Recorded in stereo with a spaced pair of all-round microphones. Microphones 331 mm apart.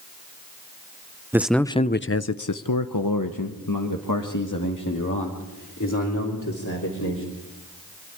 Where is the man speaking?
5° right (ahead or behind), 0.8 m; by 7.2 s 60° left (ahead or behind), 4 m.